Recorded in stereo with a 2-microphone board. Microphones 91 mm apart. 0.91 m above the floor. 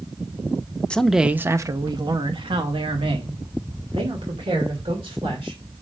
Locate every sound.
0.9 s a man speaking: 10° left (ahead or behind), 0.7 m; by 5.6 s 85° right, 3 m